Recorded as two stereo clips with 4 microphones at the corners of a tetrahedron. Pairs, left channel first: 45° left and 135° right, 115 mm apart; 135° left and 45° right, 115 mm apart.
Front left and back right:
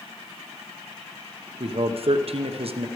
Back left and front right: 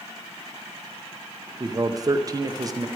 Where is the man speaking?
105° right, 1.0 m.